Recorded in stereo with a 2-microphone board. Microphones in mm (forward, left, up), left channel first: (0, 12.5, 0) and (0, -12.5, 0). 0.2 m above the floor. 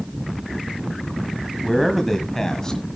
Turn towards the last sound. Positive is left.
turn(degrees=25)  # may be behind; listen again after turning